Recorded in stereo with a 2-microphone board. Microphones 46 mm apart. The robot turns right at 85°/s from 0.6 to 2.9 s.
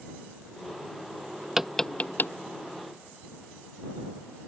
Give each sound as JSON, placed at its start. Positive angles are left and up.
{"t": 1.6, "sound": "tapping", "side_deg": -10}